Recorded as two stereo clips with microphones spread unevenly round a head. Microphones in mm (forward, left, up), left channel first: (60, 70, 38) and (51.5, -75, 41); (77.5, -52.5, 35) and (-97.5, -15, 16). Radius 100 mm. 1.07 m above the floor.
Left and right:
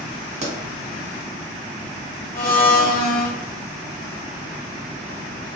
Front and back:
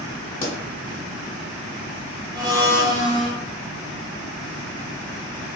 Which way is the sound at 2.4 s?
105° left.